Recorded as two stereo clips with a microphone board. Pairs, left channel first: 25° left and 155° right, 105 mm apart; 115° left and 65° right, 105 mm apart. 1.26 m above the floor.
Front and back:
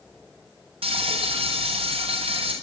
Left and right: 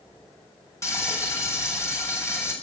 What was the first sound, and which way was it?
Frying, 175° left.